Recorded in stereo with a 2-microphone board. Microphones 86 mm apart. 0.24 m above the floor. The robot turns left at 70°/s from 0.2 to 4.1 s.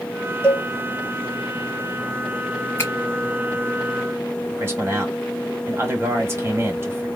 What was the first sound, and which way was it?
A cowbell, 25° left (ahead or behind).